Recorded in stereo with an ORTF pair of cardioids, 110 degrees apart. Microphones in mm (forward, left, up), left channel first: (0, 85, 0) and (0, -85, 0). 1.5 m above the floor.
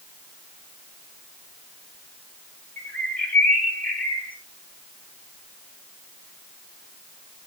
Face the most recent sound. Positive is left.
turn(degrees=10)